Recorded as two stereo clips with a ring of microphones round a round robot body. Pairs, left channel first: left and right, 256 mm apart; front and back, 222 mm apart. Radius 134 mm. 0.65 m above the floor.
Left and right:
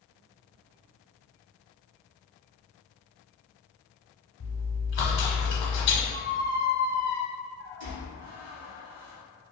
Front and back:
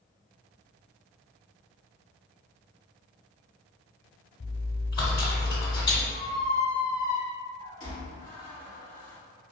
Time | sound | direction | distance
4.4 | chewing | 65° left | 0.9 m
6.1 | a squeak | 60° right | 1.3 m